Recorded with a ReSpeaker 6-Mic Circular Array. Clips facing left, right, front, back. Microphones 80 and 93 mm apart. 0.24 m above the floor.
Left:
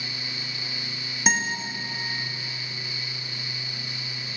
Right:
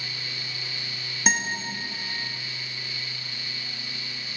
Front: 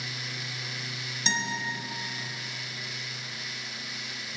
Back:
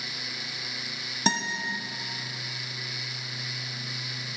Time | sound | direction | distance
1.3 | a guitar | 175° left | 0.7 m